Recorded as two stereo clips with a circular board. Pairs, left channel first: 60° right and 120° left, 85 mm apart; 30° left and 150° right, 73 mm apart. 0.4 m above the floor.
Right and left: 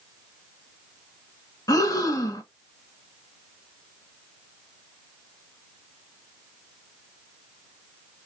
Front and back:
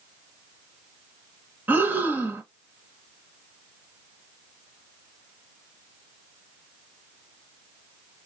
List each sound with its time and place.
1.7 s breathing: 90° right, 0.9 m